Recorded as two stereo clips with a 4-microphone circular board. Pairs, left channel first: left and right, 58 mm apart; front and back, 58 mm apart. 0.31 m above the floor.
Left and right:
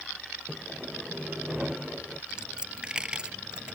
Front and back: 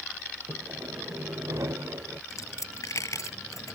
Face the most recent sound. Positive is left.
turn(degrees=-15)